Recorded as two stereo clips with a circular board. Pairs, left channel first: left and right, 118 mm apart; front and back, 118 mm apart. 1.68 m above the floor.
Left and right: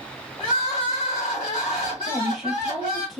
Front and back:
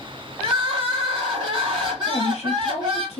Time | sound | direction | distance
0.4 | crying | 135° left | 3 m
2.1 | a woman speaking | 10° left | 1.2 m